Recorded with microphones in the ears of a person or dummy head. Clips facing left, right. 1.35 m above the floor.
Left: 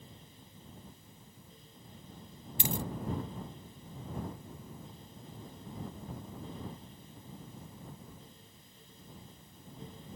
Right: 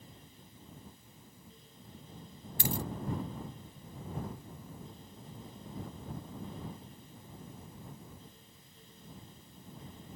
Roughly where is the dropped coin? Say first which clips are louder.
Even; left.